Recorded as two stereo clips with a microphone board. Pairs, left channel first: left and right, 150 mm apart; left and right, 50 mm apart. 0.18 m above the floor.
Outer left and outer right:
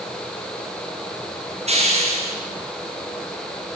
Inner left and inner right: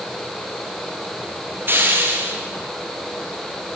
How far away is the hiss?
About 3.5 m.